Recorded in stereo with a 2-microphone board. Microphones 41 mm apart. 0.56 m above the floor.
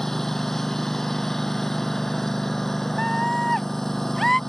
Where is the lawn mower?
10° left (ahead or behind).